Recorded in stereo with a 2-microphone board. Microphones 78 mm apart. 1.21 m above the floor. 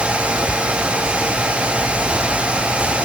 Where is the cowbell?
I don't hear a cowbell.